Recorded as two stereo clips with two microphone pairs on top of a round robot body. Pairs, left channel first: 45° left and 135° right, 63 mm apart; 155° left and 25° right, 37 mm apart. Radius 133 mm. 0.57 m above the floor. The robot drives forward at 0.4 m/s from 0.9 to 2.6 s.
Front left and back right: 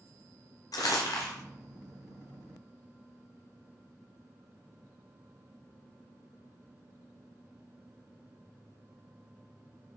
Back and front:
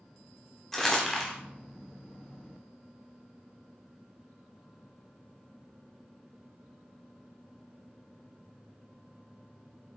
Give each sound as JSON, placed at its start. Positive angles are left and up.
{"t": 0.7, "sound": "crumpling", "azimuth_deg": 75, "distance_m": 0.7}